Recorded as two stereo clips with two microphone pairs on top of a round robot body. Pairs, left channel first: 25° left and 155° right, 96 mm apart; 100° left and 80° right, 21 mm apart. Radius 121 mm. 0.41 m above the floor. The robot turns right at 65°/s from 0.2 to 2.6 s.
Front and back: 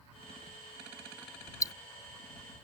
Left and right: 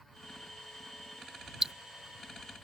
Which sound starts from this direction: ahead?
Ticking, at 1.6 s.